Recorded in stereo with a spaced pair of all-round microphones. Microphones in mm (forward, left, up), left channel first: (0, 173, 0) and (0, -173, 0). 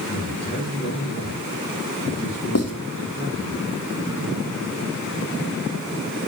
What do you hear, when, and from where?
0.1 s a man speaking: 35° left (ahead or behind), 8.5 m
2.5 s writing: 45° left (ahead or behind), 3.5 m